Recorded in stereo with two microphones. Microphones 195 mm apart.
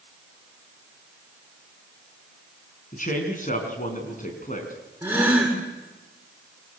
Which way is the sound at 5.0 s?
10° right (ahead or behind).